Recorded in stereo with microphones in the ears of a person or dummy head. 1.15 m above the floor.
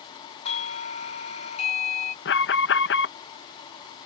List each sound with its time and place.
0.5 s a doorbell: 40° left (ahead or behind)
2.2 s an alarm: 60° left (ahead or behind)